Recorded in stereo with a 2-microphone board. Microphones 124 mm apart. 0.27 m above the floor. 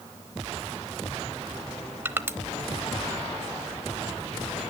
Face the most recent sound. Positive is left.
turn(degrees=-20)  # may be behind; listen again after turning